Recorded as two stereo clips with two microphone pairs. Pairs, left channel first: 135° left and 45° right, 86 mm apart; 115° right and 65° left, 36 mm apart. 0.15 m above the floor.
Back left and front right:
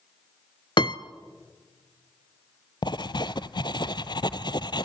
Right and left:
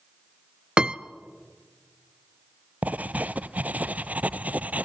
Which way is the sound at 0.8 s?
125° left.